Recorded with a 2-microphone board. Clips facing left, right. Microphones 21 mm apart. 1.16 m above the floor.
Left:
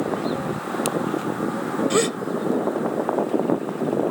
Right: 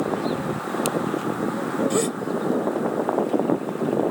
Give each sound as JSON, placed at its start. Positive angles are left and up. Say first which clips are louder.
{"t": 1.9, "sound": "a gasp", "louder": "left 2 dB", "side_deg": 25}